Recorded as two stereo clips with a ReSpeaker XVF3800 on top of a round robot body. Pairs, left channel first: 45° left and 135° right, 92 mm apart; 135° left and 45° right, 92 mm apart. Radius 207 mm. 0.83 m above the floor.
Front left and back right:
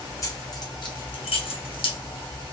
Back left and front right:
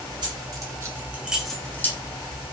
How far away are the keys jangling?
About 1.6 m.